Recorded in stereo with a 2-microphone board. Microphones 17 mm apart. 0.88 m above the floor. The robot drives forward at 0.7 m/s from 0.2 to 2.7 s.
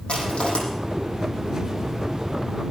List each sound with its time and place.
0.1 s crushing: 70° left (ahead or behind), 7 m